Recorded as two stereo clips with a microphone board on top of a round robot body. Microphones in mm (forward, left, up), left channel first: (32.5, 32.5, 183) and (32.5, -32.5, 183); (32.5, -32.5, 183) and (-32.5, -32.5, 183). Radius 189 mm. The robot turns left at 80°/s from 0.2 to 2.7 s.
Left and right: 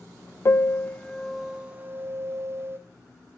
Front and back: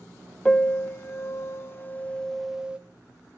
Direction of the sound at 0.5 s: 70° left.